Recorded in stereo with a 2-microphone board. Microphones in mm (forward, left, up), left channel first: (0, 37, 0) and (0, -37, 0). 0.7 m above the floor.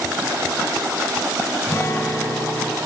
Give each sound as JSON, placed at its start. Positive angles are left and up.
{"t": 1.7, "sound": "a guitar", "side_deg": 40, "distance_m": 3.0}